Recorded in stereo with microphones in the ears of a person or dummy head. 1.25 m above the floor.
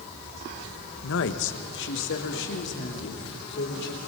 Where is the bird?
I don't hear a bird.